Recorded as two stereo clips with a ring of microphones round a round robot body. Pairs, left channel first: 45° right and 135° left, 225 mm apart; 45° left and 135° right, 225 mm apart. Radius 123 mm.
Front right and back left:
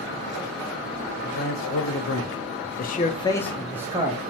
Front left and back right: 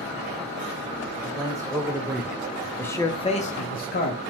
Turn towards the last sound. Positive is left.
turn(degrees=75)